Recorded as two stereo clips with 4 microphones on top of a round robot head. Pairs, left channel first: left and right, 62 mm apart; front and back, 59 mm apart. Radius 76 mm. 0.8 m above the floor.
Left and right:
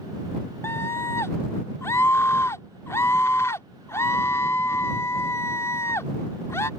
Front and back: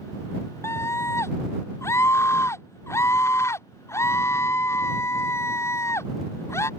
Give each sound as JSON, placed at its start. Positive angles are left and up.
{"t": 0.6, "sound": "a scream", "azimuth_deg": 35}